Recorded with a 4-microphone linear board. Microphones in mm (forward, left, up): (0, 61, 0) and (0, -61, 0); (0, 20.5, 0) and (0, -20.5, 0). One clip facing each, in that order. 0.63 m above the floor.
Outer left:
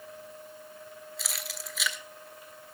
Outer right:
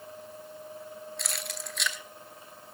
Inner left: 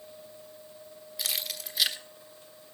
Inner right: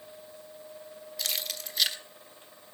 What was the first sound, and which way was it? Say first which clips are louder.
Keys jangling: even, even; centre (ahead or behind).